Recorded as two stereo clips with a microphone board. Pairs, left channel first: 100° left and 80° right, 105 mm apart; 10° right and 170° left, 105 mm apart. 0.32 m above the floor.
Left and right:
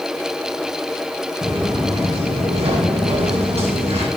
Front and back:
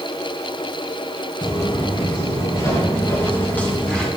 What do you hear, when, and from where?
1.4 s footsteps: 50° right, 4.5 m; by 4.1 s 95° right, 3.5 m